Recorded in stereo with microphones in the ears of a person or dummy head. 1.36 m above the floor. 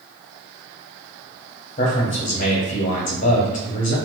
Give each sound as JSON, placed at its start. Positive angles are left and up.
{"t": 1.8, "sound": "a man speaking", "side_deg": 35, "distance_m": 0.9}